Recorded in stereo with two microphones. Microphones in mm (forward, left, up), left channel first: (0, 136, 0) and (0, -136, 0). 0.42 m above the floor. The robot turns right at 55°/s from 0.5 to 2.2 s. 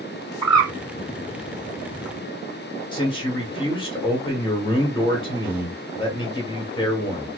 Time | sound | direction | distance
0.4 | a bird | 20° right (ahead or behind) | 1.8 m
2.9 | a man speaking | 20° left (ahead or behind) | 1.1 m